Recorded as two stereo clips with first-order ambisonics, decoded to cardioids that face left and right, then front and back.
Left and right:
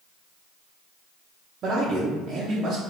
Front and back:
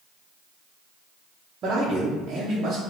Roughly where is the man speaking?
Behind right.